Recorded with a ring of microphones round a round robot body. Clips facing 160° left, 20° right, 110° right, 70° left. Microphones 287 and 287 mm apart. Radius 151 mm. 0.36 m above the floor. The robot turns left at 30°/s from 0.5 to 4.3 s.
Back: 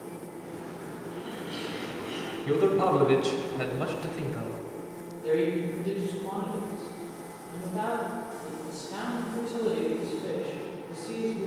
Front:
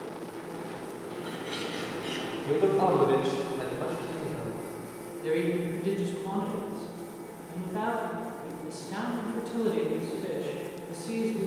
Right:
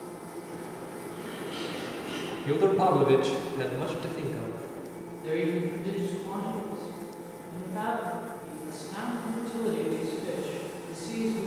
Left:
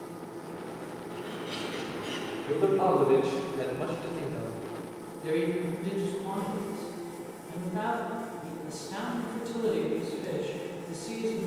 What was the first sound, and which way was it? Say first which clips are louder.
A bird: even, even; 65° left.